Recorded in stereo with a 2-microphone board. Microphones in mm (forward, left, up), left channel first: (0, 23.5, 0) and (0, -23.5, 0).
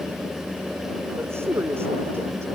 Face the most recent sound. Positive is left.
turn(degrees=-60)  # may be behind; listen again after turning